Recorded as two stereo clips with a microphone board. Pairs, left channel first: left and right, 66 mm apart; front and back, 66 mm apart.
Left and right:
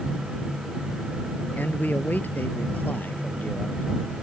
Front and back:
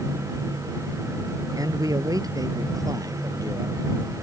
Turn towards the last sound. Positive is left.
turn(degrees=155)